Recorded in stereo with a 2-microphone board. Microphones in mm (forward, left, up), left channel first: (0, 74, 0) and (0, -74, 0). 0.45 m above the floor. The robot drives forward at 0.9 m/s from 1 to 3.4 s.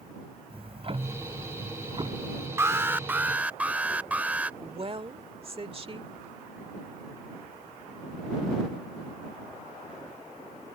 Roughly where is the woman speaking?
Right.